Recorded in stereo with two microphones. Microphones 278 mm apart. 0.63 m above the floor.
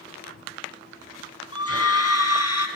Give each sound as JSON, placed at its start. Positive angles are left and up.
{"t": 1.5, "sound": "a scream", "side_deg": 55, "distance_m": 5.0}